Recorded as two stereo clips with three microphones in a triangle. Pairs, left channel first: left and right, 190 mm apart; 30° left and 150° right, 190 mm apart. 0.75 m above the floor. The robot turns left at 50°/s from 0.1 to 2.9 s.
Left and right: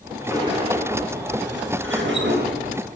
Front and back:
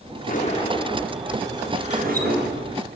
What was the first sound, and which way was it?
A sliding door, 15° right.